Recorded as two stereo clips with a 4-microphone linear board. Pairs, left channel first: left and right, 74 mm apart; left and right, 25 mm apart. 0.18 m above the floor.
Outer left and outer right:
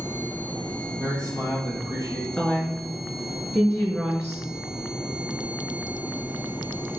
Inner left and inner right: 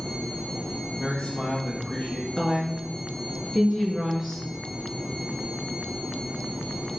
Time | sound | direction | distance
1.0 | a man speaking | 70° left (ahead or behind) | 4 m
2.4 | a woman speaking | 20° left (ahead or behind) | 2 m